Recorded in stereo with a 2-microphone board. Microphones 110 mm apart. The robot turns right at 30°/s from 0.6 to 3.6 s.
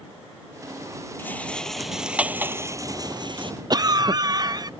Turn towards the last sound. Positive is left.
turn(degrees=-40)  # may be behind; listen again after turning